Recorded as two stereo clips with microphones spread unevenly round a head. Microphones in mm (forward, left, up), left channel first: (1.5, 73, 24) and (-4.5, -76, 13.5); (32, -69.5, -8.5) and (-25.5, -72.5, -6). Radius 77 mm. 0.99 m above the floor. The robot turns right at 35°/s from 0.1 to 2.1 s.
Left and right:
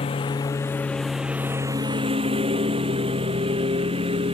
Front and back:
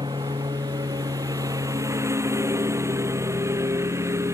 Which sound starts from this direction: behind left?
A lawn mower, at 0.0 s.